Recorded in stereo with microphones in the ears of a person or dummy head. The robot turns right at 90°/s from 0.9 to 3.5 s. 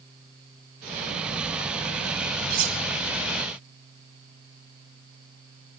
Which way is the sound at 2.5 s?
60° right (ahead or behind).